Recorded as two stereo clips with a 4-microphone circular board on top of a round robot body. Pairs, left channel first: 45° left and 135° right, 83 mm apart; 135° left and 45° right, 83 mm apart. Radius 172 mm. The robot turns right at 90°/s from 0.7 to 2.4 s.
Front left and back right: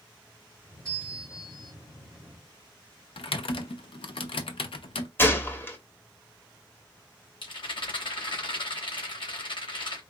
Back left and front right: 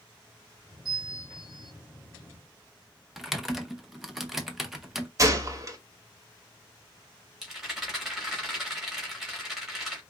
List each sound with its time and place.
0.8 s a bell: 80° right, 3 m; by 1.7 s 5° right, 3 m
3.2 s typing on a keyboard: 40° left, 0.9 m
5.2 s a gunshot: 10° right, 1.6 m
7.4 s a rattle: 45° left, 2.5 m